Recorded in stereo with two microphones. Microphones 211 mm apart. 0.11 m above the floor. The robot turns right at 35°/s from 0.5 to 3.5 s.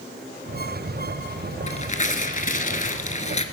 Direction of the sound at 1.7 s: 60° left.